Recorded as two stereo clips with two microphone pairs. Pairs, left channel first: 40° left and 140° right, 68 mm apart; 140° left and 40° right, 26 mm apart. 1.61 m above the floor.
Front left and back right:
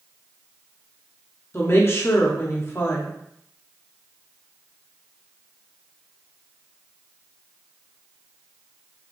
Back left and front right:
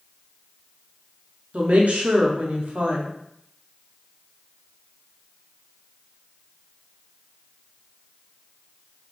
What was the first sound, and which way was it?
A woman speaking, 15° right.